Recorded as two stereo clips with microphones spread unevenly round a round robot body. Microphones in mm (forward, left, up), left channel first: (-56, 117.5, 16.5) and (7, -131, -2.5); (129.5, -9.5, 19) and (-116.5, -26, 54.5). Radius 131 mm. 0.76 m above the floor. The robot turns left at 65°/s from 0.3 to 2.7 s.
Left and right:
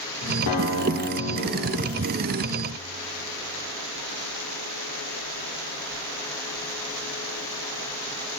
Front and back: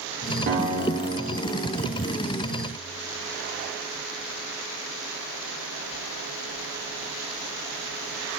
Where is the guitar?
130° left, 2.5 m; by 2.0 s 25° left, 2.5 m.